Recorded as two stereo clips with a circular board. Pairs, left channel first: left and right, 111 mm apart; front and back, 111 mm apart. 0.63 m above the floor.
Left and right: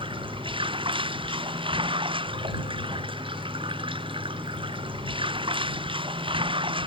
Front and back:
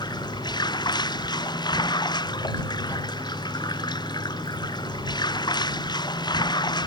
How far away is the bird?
No bird in this recording.